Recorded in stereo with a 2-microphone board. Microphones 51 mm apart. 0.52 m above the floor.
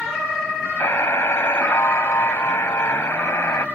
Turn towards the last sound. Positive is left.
turn(degrees=65)  # may be behind; listen again after turning